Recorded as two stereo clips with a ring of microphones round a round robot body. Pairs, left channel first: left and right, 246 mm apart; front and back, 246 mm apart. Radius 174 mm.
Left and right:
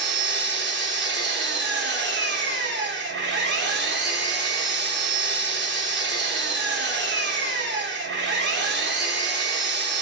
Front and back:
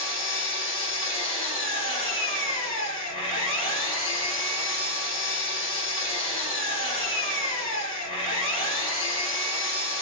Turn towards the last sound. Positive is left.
turn(degrees=-65)